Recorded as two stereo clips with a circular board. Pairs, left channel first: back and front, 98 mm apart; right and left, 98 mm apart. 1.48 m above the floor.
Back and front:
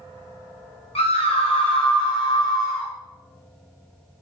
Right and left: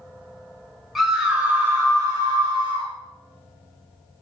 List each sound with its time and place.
0.9 s a scream: straight behind, 2 m; by 2.9 s 120° left, 3 m